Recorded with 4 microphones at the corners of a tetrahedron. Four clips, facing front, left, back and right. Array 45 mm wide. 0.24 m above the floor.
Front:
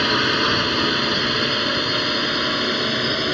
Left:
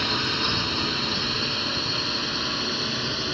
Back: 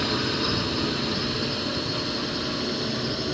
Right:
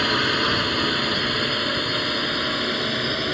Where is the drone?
30° right; by 3.3 s 25° right.